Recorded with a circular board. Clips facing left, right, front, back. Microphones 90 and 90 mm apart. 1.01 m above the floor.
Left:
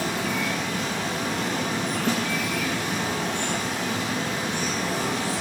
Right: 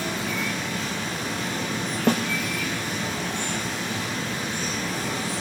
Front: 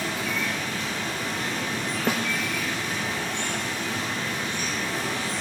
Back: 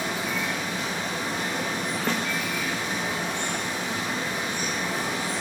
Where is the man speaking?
I don't hear a man speaking.